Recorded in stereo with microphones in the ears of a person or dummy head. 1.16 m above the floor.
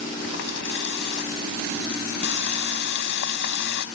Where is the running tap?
65° left (ahead or behind).